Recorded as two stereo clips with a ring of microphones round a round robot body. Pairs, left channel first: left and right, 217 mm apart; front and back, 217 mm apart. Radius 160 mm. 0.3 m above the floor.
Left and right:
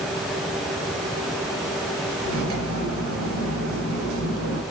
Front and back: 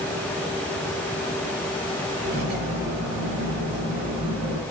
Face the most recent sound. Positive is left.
turn(degrees=-110)